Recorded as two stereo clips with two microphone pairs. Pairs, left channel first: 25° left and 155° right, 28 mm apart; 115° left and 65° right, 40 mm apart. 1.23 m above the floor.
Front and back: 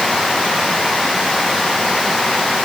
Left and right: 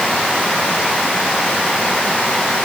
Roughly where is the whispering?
No whispering in this recording.